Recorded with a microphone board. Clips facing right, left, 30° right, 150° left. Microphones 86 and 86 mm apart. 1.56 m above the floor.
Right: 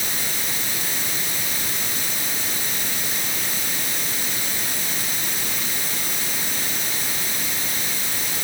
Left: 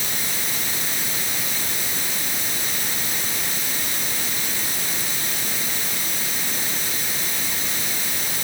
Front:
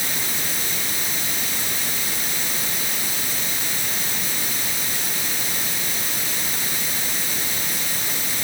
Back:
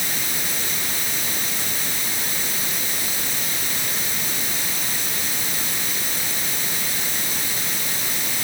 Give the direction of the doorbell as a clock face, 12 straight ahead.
No doorbell in this recording.